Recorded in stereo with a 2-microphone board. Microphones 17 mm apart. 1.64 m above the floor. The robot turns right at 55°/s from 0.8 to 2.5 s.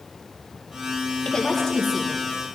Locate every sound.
1.2 s a woman speaking: 135° left, 2 m; by 2.2 s 175° right, 2 m